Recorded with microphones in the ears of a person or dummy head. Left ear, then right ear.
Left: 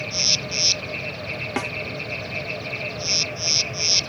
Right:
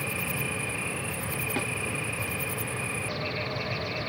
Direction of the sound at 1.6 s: 30° left (ahead or behind).